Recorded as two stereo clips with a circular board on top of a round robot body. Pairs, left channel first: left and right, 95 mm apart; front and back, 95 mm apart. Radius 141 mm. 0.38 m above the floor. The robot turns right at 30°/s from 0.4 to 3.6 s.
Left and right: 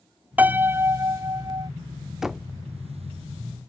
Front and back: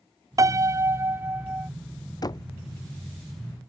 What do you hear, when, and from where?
0.4 s a piano: 155° right; by 1.7 s 115° right
2.2 s knocking: 10° right; by 2.5 s straight ahead